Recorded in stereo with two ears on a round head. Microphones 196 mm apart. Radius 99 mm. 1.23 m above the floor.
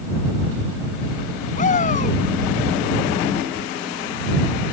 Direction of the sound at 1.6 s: 35° left (ahead or behind).